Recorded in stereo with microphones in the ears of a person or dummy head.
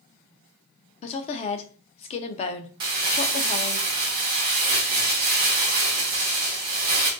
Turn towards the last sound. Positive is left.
turn(degrees=-25)  # may be behind; listen again after turning